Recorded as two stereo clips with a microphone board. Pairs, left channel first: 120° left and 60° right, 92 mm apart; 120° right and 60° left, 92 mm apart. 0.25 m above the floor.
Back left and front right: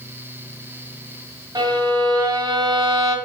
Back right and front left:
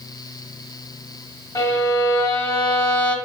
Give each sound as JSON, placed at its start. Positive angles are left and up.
{"t": 1.6, "sound": "a violin", "azimuth_deg": -80, "distance_m": 2.0}